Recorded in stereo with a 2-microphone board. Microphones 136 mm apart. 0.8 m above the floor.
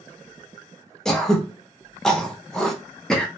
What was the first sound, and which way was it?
Throat clearing, 5° left (ahead or behind).